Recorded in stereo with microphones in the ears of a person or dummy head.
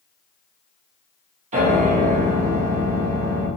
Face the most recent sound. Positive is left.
turn(degrees=-45)  # may be behind; listen again after turning